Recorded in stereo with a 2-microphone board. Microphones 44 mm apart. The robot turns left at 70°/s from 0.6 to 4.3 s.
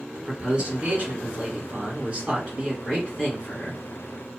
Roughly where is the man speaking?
Ahead right.